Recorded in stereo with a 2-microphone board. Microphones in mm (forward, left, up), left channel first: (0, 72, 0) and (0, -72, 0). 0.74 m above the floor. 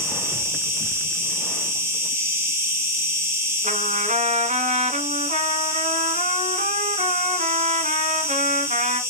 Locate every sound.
0.0 s an insect: 20° right (ahead or behind), 1.8 m
3.6 s a trumpet: 65° right (ahead or behind), 1.1 m